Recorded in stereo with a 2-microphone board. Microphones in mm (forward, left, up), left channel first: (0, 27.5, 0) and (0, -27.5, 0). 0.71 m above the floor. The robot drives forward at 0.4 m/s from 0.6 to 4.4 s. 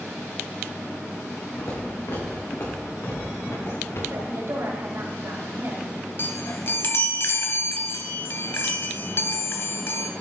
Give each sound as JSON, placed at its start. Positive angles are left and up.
{"t": 1.6, "sound": "footsteps", "side_deg": 80, "distance_m": 4.0}
{"t": 4.1, "sound": "a woman speaking", "side_deg": -60, "distance_m": 3.5}
{"t": 6.2, "sound": "a chime", "side_deg": 50, "distance_m": 1.3}